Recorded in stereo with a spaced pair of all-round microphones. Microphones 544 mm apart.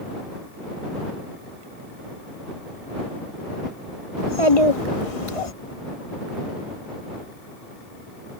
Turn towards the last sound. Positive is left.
turn(degrees=75)  # may be behind; listen again after turning